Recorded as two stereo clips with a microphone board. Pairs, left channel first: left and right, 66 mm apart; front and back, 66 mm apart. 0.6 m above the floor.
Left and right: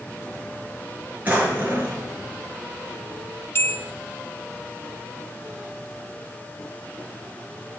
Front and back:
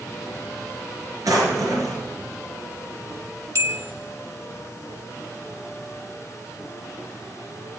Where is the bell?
140° left, 1.0 m.